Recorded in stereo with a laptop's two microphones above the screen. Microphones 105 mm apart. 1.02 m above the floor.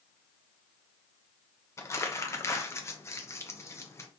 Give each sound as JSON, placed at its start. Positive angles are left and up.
{"t": 1.8, "sound": "crumpling", "side_deg": 30, "distance_m": 0.5}